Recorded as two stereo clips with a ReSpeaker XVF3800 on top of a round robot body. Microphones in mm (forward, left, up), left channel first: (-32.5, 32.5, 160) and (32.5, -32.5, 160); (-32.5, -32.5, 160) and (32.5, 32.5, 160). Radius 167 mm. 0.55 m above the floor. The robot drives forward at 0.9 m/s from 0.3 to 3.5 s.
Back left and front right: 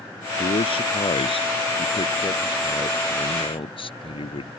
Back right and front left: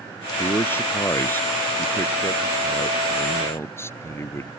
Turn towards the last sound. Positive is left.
turn(degrees=160)